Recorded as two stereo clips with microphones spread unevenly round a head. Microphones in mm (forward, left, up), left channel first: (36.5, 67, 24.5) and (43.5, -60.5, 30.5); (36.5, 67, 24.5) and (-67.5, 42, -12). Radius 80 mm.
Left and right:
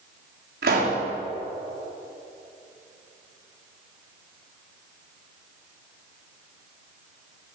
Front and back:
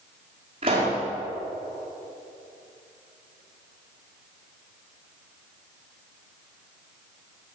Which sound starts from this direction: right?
A pop, at 0.6 s.